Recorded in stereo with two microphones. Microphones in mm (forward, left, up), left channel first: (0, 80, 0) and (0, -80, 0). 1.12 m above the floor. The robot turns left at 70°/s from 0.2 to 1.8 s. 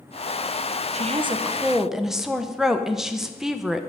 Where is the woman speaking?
115° right, 0.6 m; by 3.8 s 175° right, 0.6 m.